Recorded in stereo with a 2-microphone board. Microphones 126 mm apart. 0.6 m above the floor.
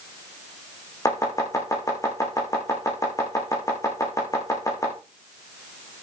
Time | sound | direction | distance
1.1 | chopping | 25° left (ahead or behind) | 8 m